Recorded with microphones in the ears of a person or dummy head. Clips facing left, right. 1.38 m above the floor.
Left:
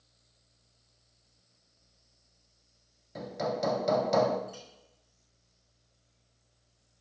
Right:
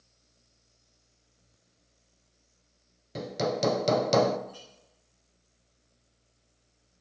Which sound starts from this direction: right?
Hammering, at 3.1 s.